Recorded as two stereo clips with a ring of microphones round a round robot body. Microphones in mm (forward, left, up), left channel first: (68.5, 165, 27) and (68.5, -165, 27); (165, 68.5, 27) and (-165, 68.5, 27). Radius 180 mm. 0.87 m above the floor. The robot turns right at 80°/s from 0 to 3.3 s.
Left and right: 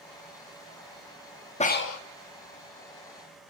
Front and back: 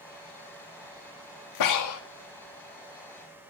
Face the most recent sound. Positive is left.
turn(degrees=155)